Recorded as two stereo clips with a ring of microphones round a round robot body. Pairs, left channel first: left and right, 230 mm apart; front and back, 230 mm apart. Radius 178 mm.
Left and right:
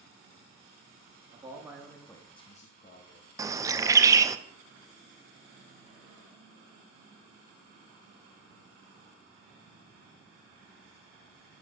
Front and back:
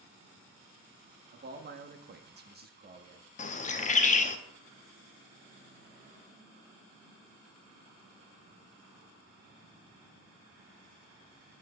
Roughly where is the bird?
Ahead.